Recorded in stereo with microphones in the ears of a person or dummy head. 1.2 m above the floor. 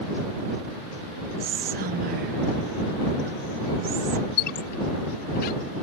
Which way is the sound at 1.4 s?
45° right (ahead or behind).